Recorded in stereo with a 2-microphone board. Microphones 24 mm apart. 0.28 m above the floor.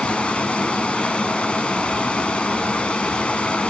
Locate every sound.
0.0 s running water: 55° left (ahead or behind), 1.2 m